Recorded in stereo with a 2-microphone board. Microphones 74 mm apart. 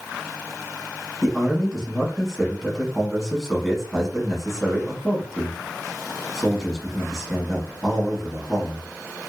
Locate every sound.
1.2 s a man speaking: 5° left (ahead or behind), 1.0 m